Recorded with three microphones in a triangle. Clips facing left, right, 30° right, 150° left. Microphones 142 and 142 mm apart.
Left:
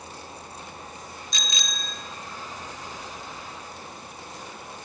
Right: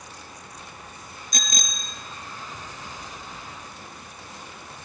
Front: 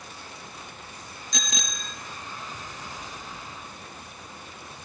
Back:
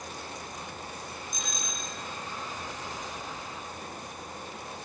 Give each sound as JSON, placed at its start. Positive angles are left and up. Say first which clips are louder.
{"t": 1.3, "sound": "a bicycle bell", "louder": "right 3 dB, front 2 dB", "azimuth_deg": -45, "distance_m": 2.5}